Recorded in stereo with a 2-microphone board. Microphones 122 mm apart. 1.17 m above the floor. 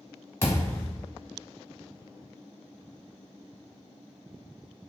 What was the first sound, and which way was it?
A thud, 20° left (ahead or behind).